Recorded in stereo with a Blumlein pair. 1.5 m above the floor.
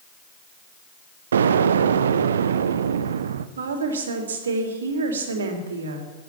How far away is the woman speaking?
About 3 m.